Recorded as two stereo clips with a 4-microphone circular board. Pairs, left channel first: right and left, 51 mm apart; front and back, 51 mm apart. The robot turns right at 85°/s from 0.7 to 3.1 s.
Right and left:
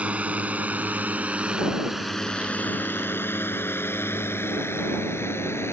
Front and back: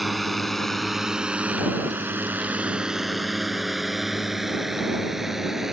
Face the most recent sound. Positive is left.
turn(degrees=-100)